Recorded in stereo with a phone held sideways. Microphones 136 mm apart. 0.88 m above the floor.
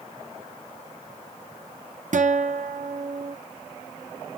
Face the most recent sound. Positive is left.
turn(degrees=-70)  # may be behind; listen again after turning